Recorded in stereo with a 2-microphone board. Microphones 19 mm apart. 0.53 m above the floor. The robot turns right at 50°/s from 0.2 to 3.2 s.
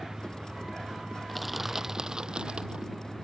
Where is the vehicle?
150° right; by 3.2 s straight ahead.